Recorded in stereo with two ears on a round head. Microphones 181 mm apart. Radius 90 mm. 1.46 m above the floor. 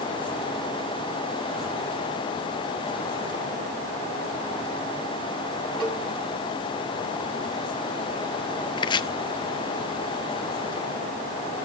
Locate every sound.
5.8 s a cowbell: 25° right (ahead or behind), 10 m
8.8 s chopping: 20° left (ahead or behind), 0.6 m